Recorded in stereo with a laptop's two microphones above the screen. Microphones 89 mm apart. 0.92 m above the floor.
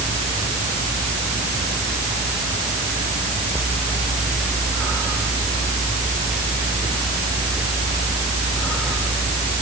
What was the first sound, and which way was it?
Only background noise.